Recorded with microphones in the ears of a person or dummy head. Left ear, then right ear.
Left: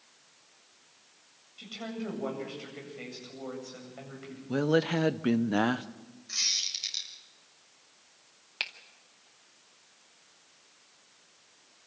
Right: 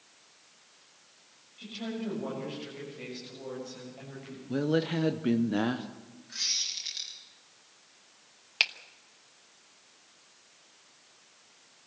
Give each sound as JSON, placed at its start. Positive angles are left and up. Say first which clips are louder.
{"t": 1.6, "sound": "a woman speaking", "louder": "right 1 dB", "side_deg": 60, "distance_m": 8.0}
{"t": 4.5, "sound": "a woman speaking", "louder": "left 2 dB", "side_deg": 40, "distance_m": 0.8}
{"t": 6.3, "sound": "a squeak", "louder": "left 2 dB", "side_deg": 85, "distance_m": 5.5}
{"t": 8.6, "sound": "a finger snap", "louder": "right 8 dB", "side_deg": -20, "distance_m": 1.0}